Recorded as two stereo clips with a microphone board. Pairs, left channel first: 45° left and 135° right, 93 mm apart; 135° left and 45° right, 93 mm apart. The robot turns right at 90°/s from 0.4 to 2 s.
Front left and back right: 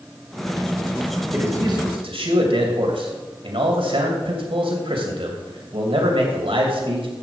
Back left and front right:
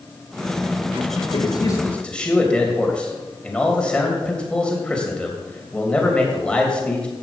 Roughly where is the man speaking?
Behind left.